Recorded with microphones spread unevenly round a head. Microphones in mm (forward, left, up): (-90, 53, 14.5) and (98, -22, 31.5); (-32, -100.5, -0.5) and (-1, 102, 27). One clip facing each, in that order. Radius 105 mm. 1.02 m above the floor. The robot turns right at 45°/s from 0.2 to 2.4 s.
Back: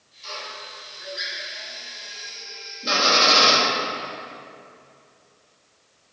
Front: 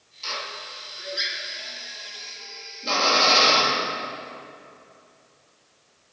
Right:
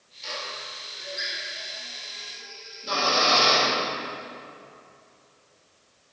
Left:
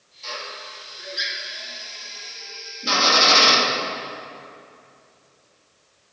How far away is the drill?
About 1.8 m.